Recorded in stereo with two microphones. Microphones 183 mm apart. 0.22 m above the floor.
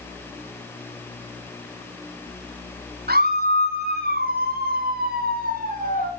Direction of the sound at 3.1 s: 60° right (ahead or behind).